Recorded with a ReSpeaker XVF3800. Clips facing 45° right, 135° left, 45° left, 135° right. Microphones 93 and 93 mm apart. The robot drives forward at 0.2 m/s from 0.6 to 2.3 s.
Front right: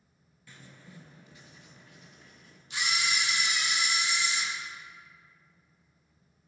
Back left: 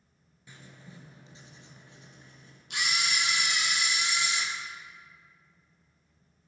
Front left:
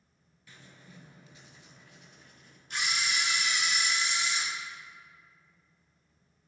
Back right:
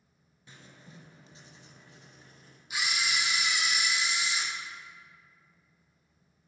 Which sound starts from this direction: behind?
Writing, at 0.5 s.